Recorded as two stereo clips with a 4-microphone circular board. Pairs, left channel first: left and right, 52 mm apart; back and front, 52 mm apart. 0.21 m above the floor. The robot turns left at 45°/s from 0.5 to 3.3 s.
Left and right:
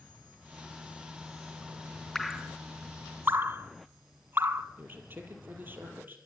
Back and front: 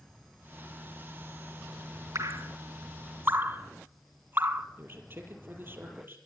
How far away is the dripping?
About 0.9 m.